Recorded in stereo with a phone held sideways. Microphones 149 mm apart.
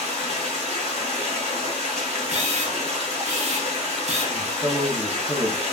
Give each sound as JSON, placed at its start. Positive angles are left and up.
{"t": 0.0, "sound": "running water", "side_deg": -50, "distance_m": 1.3}
{"t": 2.3, "sound": "a camera shutter", "side_deg": -50, "distance_m": 0.5}
{"t": 4.3, "sound": "a man speaking", "side_deg": -25, "distance_m": 0.7}